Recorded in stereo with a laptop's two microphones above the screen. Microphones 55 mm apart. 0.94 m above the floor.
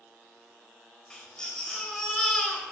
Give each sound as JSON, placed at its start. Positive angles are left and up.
{"t": 1.1, "sound": "a baby crying", "side_deg": 15, "distance_m": 1.9}